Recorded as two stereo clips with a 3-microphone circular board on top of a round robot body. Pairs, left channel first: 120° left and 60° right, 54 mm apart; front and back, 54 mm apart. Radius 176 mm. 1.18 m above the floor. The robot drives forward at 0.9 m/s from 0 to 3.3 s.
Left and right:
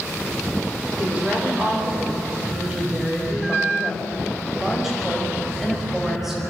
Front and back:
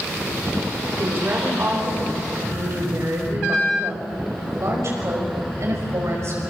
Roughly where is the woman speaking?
Behind right.